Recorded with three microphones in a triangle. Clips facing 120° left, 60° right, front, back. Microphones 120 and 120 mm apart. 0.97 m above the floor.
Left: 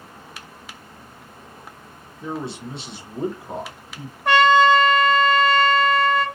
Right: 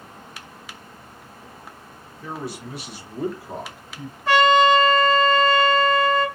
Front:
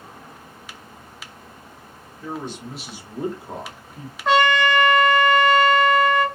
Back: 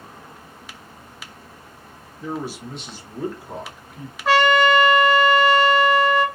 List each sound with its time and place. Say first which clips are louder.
2.2 s a man speaking: left 3 dB, back 2 dB; 145° left, 0.6 m; by 4.2 s 50° left, 1.2 m
4.2 s a trumpet: left 1 dB, back 2 dB; 95° left, 1.1 m